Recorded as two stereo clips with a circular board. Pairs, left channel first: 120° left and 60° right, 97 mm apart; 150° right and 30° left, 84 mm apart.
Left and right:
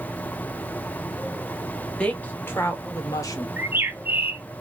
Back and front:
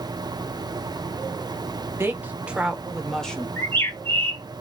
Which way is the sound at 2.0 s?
55° left.